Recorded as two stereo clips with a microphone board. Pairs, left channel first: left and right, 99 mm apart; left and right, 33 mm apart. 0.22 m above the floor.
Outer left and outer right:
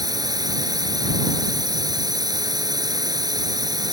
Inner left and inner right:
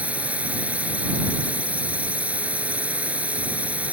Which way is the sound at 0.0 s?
40° right (ahead or behind).